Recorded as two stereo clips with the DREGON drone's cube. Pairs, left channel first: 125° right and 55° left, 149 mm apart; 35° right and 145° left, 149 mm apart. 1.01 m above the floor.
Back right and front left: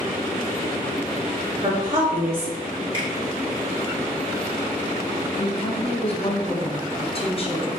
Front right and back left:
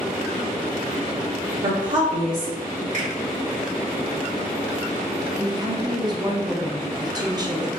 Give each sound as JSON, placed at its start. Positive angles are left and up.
{"t": 1.6, "sound": "a woman speaking", "azimuth_deg": 115, "distance_m": 1.8}
{"t": 2.9, "sound": "a finger snap", "azimuth_deg": 115, "distance_m": 1.7}
{"t": 5.4, "sound": "a woman speaking", "azimuth_deg": -160, "distance_m": 0.7}